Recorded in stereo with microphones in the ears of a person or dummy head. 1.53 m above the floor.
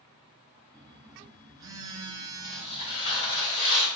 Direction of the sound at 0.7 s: 20° right (ahead or behind).